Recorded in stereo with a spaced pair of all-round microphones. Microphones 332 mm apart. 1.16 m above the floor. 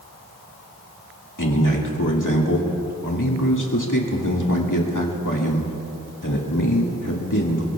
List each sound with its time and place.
1.4 s a man speaking: 65° left (ahead or behind), 2 m